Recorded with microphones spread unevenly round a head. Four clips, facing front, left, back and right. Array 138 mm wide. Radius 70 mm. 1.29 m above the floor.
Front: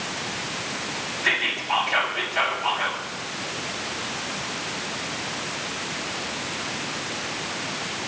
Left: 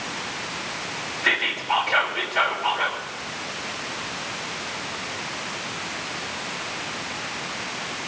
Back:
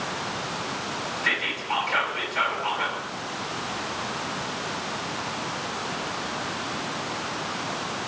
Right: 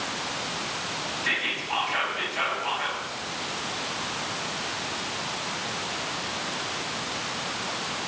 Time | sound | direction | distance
1.2 | whispering | 85° left | 3.5 m